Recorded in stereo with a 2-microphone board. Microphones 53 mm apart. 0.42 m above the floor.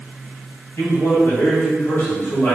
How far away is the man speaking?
About 1.8 m.